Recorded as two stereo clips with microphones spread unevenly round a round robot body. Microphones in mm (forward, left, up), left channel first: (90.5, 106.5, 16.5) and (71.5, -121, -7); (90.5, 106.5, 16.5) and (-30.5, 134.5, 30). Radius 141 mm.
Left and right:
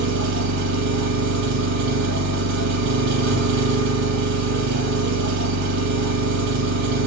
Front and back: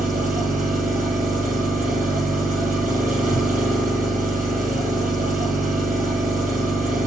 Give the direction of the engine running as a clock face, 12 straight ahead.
4 o'clock.